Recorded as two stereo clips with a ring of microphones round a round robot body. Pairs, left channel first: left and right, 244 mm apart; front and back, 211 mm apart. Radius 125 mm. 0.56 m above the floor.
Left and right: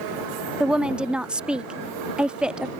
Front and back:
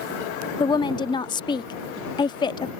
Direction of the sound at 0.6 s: 10° right.